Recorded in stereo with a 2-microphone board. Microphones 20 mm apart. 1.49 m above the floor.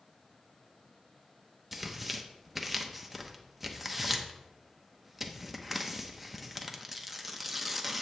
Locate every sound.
1.7 s tearing paper: 10° right (ahead or behind), 0.9 m